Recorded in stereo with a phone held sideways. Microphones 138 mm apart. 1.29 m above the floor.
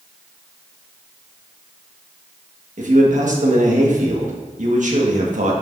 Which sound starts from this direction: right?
A man speaking, at 2.8 s.